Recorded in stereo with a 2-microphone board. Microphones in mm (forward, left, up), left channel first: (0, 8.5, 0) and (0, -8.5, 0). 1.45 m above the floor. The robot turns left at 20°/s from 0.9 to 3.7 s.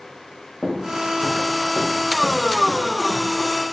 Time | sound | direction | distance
0.6 | footsteps | centre (ahead or behind) | 4 m